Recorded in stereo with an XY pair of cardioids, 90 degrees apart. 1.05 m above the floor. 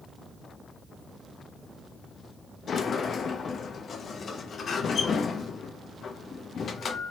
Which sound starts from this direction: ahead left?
A sliding door, at 2.7 s.